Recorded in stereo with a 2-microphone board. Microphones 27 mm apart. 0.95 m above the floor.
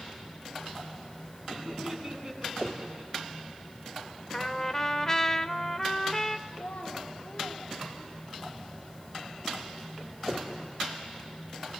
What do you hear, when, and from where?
1.5 s laughter: 20° right (ahead or behind), 8 m; by 3.5 s 10° right (ahead or behind), 6.5 m
4.3 s a trumpet: 15° left (ahead or behind), 0.7 m
6.5 s a child speaking: 85° left, 5 m